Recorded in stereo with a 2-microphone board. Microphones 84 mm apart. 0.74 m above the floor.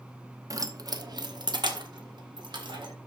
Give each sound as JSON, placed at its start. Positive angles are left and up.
{"t": 0.5, "sound": "keys jangling", "side_deg": -45, "distance_m": 0.7}